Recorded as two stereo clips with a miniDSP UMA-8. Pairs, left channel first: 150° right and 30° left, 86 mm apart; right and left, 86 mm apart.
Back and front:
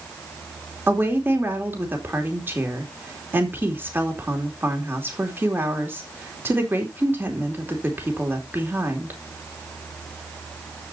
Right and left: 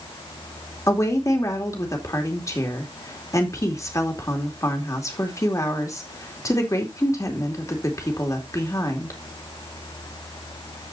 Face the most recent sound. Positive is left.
turn(degrees=-35)